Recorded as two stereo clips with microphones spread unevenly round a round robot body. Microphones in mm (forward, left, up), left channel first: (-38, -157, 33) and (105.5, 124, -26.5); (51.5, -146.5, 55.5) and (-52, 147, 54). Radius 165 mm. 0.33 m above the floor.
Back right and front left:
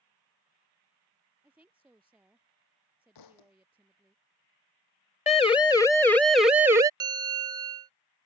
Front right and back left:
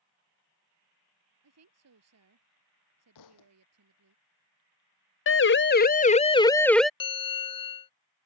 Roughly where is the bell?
Ahead.